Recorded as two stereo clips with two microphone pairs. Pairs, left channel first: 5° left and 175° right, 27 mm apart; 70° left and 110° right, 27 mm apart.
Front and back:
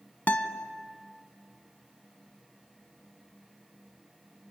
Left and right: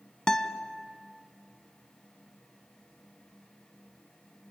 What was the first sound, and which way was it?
A guitar, 5° left.